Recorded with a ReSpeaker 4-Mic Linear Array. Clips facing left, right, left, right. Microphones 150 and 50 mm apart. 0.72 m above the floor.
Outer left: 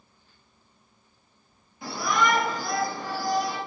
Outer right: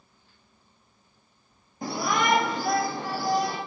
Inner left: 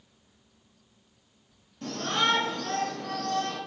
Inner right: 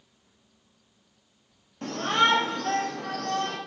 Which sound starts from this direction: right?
A shout, at 1.8 s.